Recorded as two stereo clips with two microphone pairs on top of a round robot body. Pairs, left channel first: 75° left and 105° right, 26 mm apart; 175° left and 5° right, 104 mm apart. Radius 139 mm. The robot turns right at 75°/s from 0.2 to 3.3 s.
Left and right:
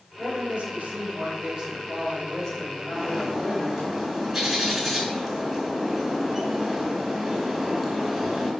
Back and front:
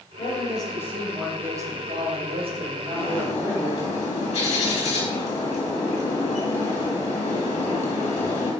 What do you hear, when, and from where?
0.2 s a man speaking: 165° right, 3 m; by 3.9 s 65° left, 3 m
2.9 s a bird: 140° left, 3.5 m; by 8.5 s 170° left, 3.5 m